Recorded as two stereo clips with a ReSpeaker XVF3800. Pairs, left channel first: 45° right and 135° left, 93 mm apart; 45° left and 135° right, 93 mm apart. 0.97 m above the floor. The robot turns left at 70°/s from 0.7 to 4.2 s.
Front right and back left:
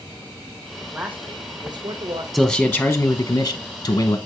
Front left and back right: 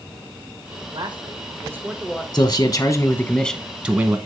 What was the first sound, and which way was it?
A man speaking, 140° right.